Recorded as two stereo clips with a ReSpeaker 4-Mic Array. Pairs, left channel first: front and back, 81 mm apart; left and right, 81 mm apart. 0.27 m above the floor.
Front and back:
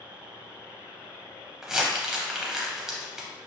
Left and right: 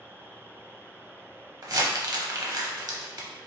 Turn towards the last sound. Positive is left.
turn(degrees=-100)